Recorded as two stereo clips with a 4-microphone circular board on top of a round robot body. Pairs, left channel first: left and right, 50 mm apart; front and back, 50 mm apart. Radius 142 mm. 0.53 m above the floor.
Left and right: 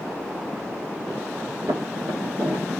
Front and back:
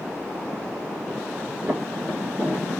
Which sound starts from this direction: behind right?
Footsteps, at 1.7 s.